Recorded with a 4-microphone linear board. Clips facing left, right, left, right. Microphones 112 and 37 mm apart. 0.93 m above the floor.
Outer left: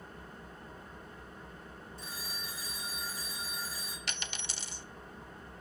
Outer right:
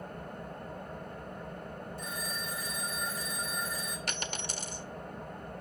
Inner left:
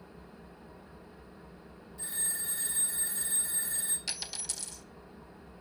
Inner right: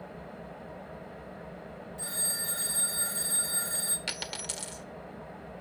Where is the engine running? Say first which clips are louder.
Outer right 7 dB, inner right 8 dB; 60° right (ahead or behind), 1.1 m.